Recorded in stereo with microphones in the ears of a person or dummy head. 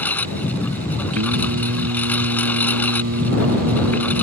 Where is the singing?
75° right (ahead or behind).